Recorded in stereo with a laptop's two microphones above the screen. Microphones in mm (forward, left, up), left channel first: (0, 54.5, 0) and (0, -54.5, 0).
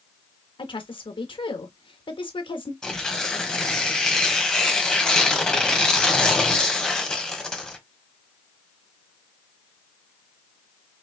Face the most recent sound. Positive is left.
turn(degrees=5)  # may be behind; listen again after turning